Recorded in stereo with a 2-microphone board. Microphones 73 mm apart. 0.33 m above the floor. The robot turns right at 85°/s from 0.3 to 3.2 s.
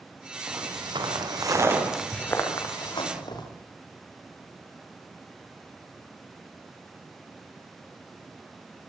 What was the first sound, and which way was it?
Footsteps, 35° right (ahead or behind).